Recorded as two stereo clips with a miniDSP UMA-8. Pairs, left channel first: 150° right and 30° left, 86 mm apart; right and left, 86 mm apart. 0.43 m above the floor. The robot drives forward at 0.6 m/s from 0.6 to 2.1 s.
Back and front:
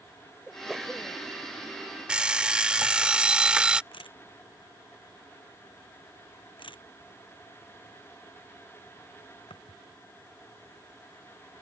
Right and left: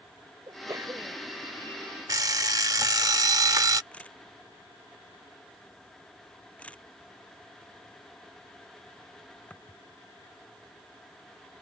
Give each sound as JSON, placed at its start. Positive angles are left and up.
{"t": 0.5, "sound": "a sneeze", "azimuth_deg": 110}
{"t": 2.1, "sound": "an alarm clock", "azimuth_deg": 100}
{"t": 3.9, "sound": "a camera shutter", "azimuth_deg": -165}